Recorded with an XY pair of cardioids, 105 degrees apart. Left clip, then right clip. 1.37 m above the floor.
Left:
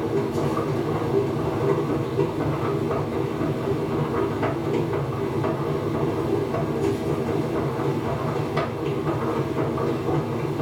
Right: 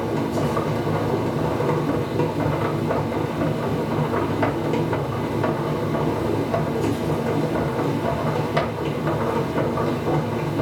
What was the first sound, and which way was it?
A machine running, 65° right.